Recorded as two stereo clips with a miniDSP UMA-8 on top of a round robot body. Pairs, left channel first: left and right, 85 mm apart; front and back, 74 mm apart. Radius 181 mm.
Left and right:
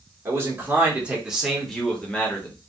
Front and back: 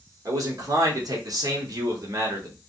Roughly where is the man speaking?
Behind right.